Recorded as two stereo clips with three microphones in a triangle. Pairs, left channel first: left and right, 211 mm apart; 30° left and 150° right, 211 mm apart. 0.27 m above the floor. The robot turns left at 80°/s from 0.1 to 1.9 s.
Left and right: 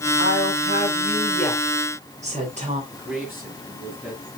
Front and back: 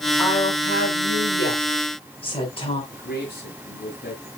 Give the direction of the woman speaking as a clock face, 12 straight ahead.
9 o'clock.